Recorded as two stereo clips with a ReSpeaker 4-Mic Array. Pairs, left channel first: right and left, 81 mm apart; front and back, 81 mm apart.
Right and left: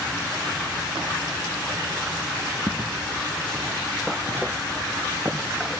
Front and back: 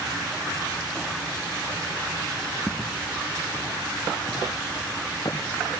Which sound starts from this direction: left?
Footsteps, at 2.7 s.